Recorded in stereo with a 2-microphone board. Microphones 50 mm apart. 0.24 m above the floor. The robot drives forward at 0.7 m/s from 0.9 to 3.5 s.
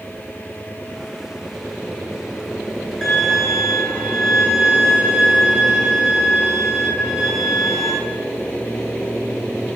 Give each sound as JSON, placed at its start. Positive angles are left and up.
{"t": 3.0, "sound": "a violin", "side_deg": 5, "distance_m": 0.6}